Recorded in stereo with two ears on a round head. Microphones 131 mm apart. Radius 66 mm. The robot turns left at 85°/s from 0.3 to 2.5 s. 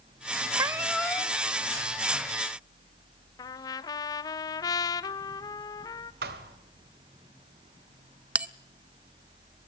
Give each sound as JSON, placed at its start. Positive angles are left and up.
{"t": 0.6, "sound": "a cat meowing", "azimuth_deg": -145, "distance_m": 0.9}
{"t": 3.4, "sound": "a trumpet", "side_deg": 25, "distance_m": 0.6}
{"t": 6.2, "sound": "a thud", "side_deg": -70, "distance_m": 2.0}
{"t": 8.3, "sound": "a bell", "side_deg": -10, "distance_m": 0.6}